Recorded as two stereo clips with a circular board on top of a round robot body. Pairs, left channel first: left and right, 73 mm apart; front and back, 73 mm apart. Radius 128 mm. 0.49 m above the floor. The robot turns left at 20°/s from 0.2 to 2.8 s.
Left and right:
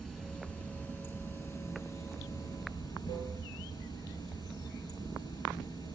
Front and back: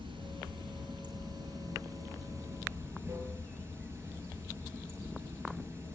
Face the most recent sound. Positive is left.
turn(degrees=120)